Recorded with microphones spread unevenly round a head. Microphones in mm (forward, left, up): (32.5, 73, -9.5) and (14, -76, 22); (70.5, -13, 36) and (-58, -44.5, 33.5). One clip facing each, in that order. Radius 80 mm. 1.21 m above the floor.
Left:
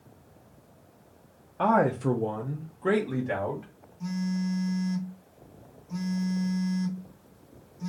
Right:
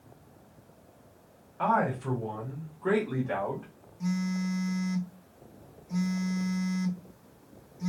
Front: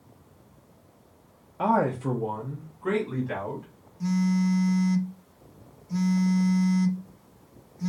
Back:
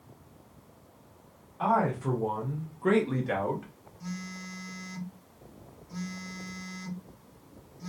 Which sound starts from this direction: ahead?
A phone buzzing, at 4.0 s.